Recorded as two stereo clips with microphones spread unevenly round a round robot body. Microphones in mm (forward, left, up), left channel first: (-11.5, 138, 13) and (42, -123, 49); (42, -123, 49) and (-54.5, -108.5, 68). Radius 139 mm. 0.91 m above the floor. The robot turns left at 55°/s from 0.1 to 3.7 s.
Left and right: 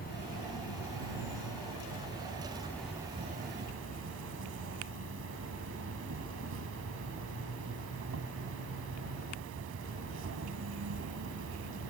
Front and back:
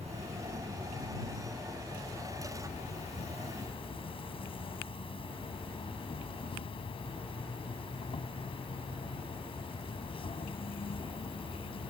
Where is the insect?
160° left; by 11.9 s 35° right.